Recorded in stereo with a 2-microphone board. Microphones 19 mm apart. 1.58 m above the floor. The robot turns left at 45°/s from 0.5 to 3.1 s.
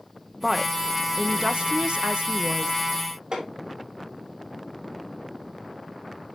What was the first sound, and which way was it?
A woman speaking, 10° right.